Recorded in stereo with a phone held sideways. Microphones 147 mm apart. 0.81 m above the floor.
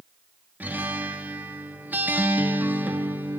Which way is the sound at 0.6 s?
10° right (ahead or behind).